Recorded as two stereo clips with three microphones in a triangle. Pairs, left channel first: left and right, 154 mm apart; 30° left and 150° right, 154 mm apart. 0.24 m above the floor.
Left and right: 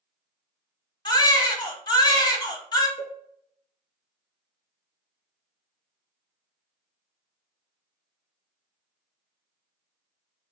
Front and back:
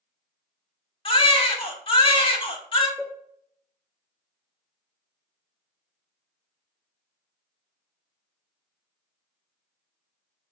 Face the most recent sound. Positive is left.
turn(degrees=140)